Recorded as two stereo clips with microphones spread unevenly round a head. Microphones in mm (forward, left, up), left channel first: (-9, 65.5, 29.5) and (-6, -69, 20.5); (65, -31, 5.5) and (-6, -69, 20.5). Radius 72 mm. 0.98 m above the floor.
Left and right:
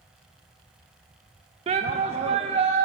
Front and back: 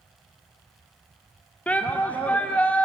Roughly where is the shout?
Ahead right.